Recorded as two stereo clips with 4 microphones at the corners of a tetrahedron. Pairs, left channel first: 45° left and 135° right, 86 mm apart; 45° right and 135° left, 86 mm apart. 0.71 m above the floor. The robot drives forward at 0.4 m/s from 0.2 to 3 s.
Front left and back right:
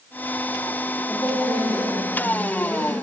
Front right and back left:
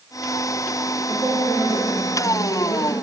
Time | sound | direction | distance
1.1 | a woman speaking | 110° left | 1.8 m